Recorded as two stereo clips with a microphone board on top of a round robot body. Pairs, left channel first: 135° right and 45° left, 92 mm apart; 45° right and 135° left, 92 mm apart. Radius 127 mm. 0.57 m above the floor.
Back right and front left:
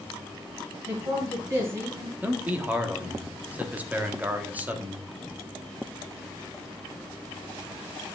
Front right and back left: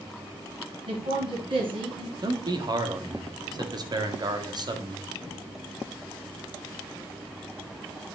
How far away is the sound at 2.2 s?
About 1.7 m.